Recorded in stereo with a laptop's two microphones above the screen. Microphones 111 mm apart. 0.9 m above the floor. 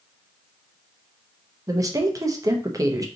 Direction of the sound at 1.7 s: 30° right (ahead or behind).